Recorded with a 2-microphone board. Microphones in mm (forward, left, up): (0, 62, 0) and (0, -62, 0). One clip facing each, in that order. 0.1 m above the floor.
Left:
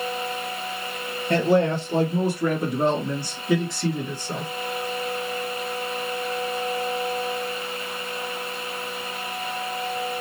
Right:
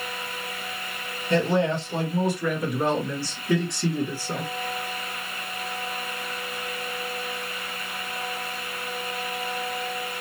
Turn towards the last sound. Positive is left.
turn(degrees=-15)  # may be behind; listen again after turning